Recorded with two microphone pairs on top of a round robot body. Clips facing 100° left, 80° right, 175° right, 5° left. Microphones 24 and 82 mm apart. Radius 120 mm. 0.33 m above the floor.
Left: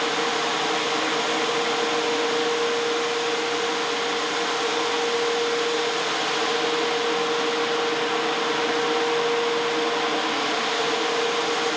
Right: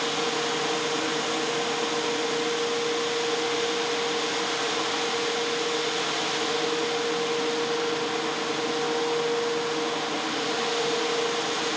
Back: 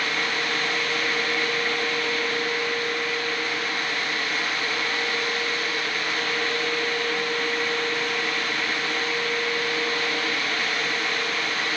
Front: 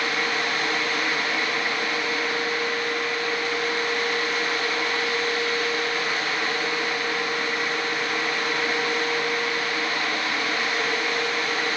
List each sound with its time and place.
Only background noise.